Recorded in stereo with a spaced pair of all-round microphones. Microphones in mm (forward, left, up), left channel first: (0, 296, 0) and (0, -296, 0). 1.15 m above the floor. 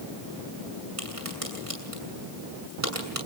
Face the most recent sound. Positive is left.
turn(degrees=-65)  # may be behind; listen again after turning